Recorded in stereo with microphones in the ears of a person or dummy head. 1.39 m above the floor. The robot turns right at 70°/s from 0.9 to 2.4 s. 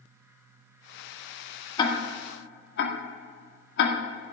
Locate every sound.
1.8 s ticking: 20° left (ahead or behind), 1.7 m; by 4.0 s 60° left (ahead or behind), 1.7 m